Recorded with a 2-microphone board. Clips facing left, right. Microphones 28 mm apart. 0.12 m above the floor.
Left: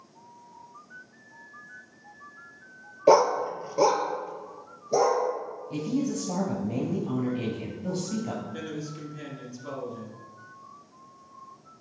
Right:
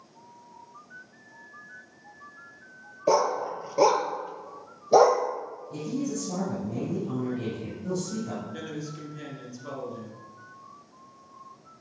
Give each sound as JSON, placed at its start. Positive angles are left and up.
{"t": 3.1, "sound": "a dog barking", "side_deg": 25, "distance_m": 0.6}
{"t": 5.7, "sound": "a woman speaking", "side_deg": 55, "distance_m": 1.9}
{"t": 8.5, "sound": "a man speaking", "side_deg": 0, "distance_m": 1.6}